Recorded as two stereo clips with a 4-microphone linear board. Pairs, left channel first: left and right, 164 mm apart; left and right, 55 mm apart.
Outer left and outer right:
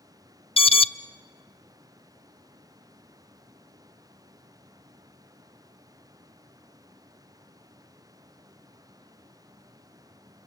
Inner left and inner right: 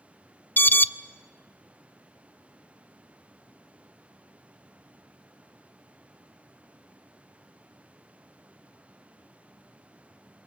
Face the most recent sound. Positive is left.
turn(degrees=35)  # may be behind; listen again after turning